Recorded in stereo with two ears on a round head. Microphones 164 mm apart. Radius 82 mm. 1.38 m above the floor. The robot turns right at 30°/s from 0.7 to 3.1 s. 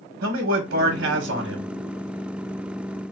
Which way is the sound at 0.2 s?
80° right.